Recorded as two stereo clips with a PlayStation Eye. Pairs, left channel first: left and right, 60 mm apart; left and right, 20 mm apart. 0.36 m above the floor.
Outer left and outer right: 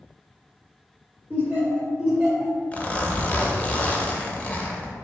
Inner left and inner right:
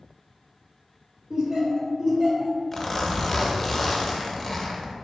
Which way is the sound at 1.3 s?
30° right (ahead or behind).